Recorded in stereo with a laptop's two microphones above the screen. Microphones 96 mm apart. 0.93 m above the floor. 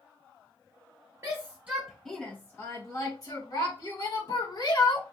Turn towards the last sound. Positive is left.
turn(degrees=60)  # may be behind; listen again after turning